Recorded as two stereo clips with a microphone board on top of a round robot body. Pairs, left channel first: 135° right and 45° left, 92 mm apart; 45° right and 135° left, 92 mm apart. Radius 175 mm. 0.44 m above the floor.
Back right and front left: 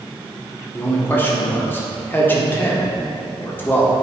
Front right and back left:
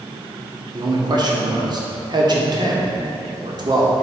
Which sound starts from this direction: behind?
A man speaking, at 0.7 s.